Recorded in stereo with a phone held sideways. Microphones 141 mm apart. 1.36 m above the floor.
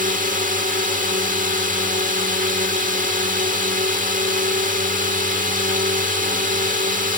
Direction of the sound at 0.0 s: 75° right (ahead or behind).